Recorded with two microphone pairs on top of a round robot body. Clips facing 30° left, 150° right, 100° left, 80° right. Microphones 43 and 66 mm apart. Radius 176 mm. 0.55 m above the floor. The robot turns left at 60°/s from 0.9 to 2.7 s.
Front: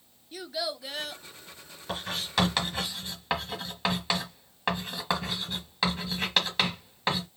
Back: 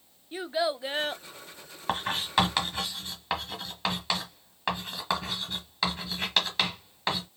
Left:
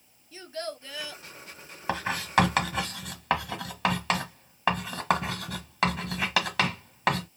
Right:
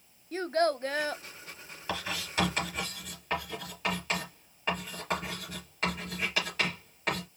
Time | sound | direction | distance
0.3 | a child speaking | 100° right | 0.6 m
1.9 | writing | 155° left | 1.3 m